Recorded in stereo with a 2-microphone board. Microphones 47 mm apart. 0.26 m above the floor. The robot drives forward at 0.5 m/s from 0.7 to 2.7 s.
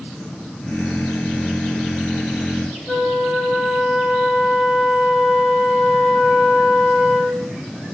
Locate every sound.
2.9 s a flute: 25° right (ahead or behind), 2 m